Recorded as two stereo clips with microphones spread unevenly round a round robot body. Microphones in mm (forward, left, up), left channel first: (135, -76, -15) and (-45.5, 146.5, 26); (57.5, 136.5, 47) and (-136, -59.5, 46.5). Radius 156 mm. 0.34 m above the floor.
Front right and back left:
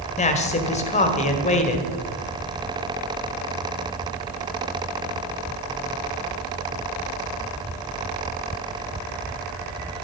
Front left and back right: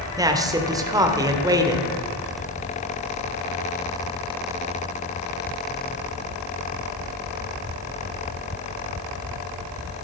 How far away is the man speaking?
About 1.6 m.